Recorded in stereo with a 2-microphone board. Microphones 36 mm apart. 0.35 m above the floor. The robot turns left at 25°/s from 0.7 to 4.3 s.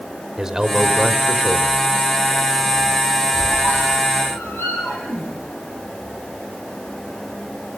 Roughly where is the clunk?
No clunk in this recording.